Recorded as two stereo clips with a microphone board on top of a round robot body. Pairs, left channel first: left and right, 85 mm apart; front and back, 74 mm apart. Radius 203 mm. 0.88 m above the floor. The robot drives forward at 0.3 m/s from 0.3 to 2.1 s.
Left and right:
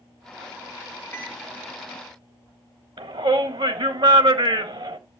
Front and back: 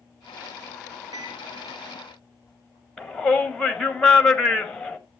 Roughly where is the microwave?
Behind left.